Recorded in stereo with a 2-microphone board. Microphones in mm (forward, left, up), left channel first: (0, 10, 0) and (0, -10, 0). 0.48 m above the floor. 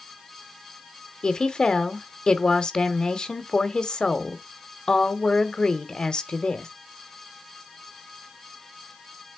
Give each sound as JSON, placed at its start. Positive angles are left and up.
{"t": 1.2, "sound": "a woman speaking", "side_deg": 45, "distance_m": 1.1}